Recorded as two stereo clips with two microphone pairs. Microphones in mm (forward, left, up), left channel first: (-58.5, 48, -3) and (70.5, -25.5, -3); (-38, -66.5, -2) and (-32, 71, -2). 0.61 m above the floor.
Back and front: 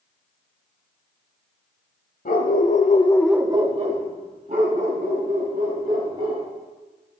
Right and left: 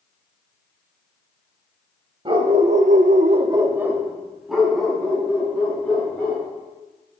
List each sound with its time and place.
2.2 s a dog barking: 140° left, 1.1 m; by 6.5 s 10° right, 3.5 m